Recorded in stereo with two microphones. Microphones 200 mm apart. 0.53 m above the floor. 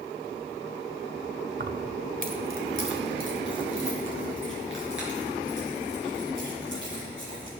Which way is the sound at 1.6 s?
50° right (ahead or behind).